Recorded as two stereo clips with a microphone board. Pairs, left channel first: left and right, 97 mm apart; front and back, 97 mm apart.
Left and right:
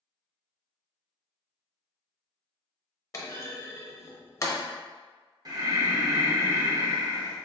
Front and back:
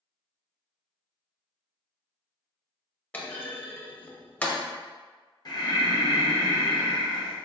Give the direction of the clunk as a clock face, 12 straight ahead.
10 o'clock.